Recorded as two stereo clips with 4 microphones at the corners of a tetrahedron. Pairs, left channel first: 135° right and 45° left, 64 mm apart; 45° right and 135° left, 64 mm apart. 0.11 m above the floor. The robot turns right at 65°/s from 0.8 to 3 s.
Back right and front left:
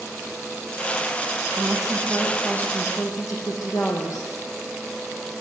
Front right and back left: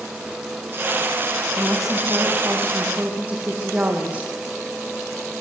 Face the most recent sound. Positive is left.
turn(degrees=-160)